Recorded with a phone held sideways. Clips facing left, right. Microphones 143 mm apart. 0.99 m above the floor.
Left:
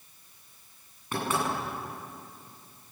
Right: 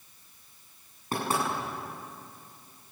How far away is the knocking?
About 9 m.